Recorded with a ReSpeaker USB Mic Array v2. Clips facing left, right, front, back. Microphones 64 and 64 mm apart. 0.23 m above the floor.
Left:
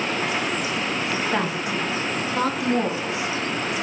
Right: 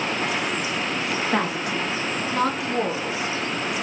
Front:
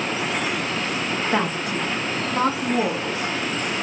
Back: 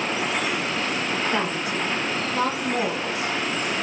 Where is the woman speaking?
Straight ahead, 1.0 m; by 3.3 s 5° left, 2.5 m.